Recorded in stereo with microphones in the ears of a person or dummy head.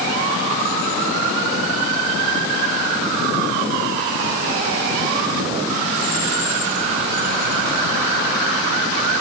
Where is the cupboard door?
No cupboard door in this recording.